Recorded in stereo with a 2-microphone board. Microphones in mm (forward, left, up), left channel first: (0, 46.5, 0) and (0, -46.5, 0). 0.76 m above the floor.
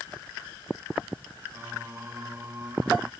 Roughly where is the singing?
Right.